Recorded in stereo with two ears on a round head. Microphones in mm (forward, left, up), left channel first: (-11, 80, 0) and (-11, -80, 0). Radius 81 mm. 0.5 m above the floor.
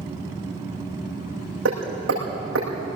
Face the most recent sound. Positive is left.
turn(degrees=-85)